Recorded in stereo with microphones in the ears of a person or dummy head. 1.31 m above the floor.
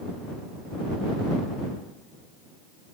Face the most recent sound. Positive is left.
No sound to turn to.